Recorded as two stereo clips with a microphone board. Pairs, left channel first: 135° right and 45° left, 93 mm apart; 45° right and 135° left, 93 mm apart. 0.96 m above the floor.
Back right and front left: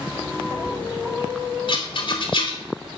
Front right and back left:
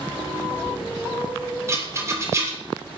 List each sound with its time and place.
1.7 s a rattle: 165° right, 2.5 m